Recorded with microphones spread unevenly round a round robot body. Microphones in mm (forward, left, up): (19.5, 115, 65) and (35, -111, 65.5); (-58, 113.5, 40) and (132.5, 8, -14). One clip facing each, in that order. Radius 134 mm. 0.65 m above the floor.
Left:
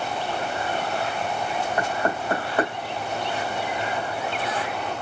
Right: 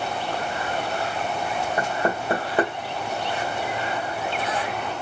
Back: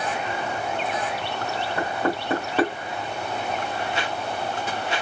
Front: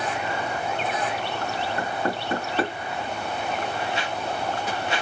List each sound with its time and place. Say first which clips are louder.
1.8 s knocking: right 1 dB, back 5 dB; 160° right, 1.8 m